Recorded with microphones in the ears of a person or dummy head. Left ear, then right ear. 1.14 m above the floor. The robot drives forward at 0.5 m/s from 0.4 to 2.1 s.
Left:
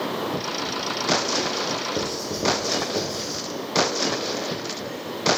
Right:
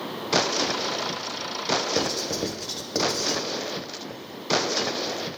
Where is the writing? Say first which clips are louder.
Right 1 dB; 45° right (ahead or behind), 0.6 m.